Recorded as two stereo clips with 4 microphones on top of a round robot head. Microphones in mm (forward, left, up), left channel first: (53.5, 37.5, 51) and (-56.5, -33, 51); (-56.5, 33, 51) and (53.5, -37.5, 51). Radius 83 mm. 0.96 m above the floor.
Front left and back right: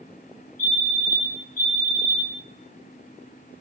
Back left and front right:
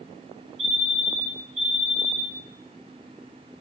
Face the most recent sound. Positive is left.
turn(degrees=10)